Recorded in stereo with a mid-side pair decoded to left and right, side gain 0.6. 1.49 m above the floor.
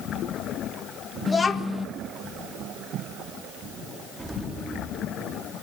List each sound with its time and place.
1.3 s a child speaking: 25° left, 1.3 m
4.2 s an explosion: 15° right, 4 m